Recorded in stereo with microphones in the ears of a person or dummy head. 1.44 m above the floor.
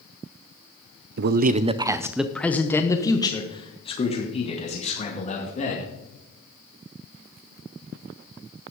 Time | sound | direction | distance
1.2 | a man speaking | 60° right (ahead or behind) | 0.6 m